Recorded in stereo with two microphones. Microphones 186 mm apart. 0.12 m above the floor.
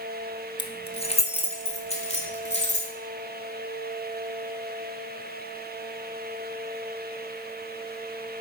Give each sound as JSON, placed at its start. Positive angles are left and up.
{"t": 0.6, "sound": "keys jangling", "side_deg": 30, "distance_m": 0.9}